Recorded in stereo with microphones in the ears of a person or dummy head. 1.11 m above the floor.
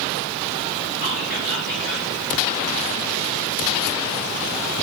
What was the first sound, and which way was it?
Whispering, 85° left.